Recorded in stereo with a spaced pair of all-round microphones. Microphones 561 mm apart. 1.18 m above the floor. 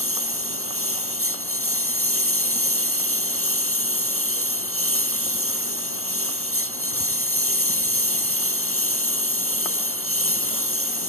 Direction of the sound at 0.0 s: 25° right (ahead or behind).